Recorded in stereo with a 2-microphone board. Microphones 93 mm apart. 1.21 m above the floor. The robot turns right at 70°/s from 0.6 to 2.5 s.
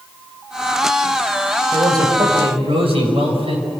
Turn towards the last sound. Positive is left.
turn(degrees=-100)